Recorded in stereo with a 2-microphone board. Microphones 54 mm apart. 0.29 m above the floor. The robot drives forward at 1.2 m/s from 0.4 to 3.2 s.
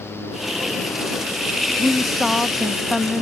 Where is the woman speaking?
Centre (ahead or behind).